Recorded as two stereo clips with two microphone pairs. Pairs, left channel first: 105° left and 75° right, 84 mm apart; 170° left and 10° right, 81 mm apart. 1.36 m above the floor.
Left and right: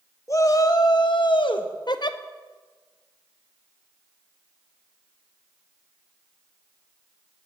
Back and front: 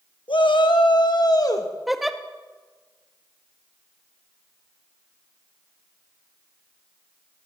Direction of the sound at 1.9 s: 80° left.